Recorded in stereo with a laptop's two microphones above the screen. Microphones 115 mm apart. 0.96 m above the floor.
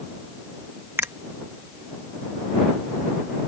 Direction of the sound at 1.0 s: 20° right (ahead or behind).